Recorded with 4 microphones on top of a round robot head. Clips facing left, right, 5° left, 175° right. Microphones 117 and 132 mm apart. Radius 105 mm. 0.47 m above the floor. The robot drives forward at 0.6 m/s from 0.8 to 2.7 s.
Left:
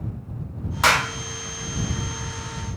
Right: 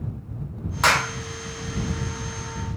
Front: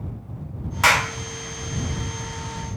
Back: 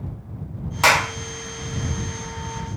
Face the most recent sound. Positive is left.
turn(degrees=180)